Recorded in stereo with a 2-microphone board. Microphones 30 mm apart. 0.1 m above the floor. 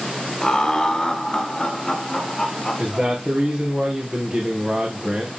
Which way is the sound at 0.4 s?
20° left (ahead or behind).